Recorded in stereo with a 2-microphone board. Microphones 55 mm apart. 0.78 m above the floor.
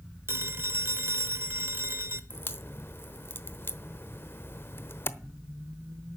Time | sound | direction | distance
0.3 | a phone ringing | 50° right (ahead or behind) | 1.8 m
2.3 | a crack | 45° left (ahead or behind) | 0.9 m